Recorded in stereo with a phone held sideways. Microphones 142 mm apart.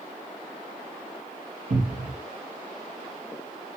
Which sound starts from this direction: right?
A cupboard door, at 1.7 s.